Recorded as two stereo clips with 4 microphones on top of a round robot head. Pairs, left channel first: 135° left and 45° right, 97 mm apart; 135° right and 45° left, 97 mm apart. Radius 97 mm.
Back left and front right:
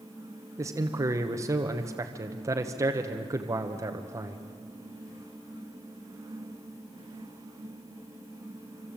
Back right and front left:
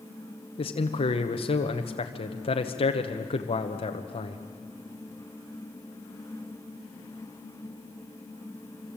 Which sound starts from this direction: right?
A man speaking, at 0.6 s.